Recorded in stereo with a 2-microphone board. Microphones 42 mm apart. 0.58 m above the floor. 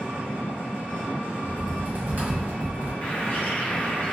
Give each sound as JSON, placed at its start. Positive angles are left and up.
{"t": 0.0, "sound": "an engine running", "side_deg": -60, "distance_m": 1.6}
{"t": 1.4, "sound": "typing on a keyboard", "side_deg": -45, "distance_m": 1.9}
{"t": 3.0, "sound": "a bird", "side_deg": 35, "distance_m": 0.8}